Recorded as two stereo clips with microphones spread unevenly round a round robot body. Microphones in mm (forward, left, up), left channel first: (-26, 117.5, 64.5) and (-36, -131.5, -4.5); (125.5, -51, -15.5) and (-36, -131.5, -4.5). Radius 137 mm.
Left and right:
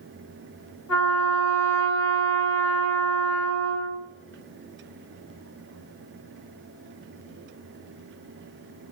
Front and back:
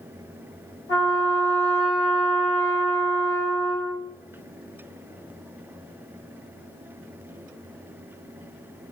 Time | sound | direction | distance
0.9 | a trumpet | 90° left | 1.6 m